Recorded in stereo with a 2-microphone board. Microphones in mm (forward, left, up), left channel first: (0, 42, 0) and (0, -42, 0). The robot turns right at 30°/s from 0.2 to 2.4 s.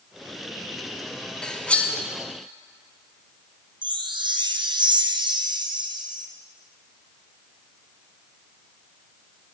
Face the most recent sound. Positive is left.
turn(degrees=-70)  # may be behind; listen again after turning